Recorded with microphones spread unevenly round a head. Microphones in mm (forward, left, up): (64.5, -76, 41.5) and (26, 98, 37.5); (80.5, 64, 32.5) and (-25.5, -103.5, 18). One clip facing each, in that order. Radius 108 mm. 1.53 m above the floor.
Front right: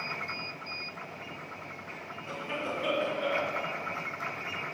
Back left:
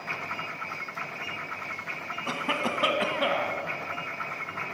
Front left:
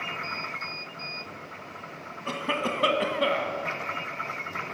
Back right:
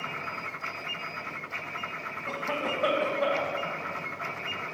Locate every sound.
2.3 s a cough: 110° left, 1.4 m